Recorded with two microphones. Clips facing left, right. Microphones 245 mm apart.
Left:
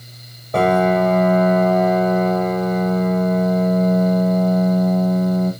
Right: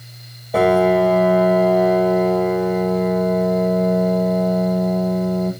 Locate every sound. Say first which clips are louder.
0.5 s a piano: right 2 dB; 5° right (ahead or behind), 4 m